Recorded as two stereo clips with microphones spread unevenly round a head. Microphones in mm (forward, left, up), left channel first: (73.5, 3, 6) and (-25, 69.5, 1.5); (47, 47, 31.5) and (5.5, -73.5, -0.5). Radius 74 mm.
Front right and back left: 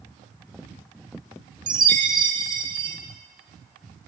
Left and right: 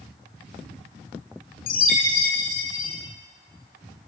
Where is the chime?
95° left, 3.5 m.